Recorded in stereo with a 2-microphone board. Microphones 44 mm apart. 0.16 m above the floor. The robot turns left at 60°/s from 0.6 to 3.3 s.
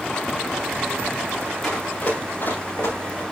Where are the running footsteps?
10° left (ahead or behind), 6.5 m; by 3.2 s 80° left, 5.5 m.